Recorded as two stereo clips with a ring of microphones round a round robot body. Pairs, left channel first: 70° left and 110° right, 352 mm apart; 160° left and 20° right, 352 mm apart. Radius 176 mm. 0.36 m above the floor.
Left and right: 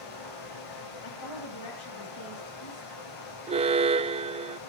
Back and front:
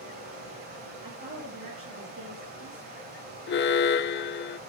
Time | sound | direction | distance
0.0 | running water | 45° left | 5 m
1.0 | a woman speaking | 35° left | 10 m
3.5 | an alarm | 175° right | 0.6 m